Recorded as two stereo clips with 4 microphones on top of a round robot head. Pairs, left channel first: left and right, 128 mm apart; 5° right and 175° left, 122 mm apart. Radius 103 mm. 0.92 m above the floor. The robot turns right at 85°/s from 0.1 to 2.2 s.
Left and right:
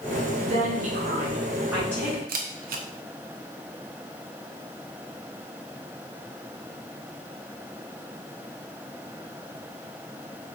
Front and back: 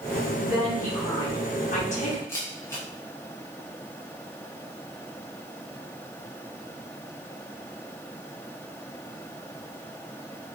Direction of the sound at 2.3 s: 80° right.